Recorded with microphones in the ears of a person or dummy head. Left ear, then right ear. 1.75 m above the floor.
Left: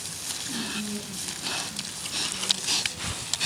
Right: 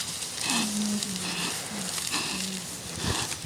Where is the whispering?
20° right (ahead or behind), 2 m.